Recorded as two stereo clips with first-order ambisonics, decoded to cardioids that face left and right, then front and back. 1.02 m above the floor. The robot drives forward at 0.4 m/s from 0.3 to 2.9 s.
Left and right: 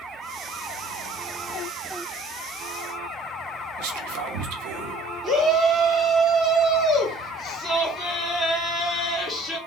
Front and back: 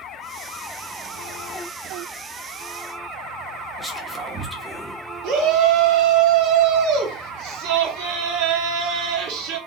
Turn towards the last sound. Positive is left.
turn(degrees=180)